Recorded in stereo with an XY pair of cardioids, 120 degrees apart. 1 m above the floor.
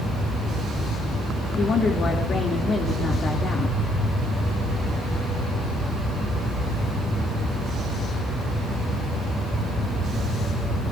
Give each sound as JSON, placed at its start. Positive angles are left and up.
{"t": 1.6, "sound": "a woman speaking", "azimuth_deg": 45, "distance_m": 1.9}